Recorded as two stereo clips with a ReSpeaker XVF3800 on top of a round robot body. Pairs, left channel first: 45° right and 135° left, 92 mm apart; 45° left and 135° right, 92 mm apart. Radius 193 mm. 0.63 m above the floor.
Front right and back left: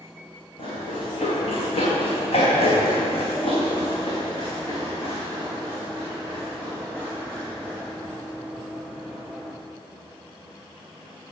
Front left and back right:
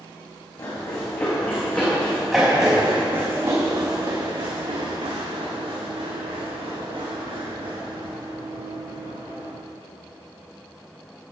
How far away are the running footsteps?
About 2.5 m.